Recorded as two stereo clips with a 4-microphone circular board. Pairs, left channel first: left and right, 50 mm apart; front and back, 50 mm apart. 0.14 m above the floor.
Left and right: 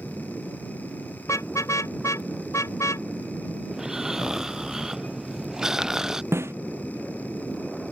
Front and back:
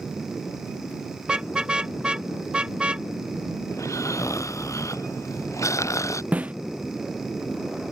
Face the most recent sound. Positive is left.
turn(degrees=-120)